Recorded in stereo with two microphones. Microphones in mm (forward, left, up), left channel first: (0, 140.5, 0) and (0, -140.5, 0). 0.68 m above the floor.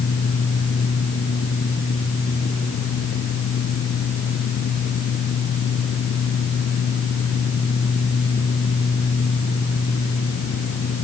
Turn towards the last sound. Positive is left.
No sound to turn to.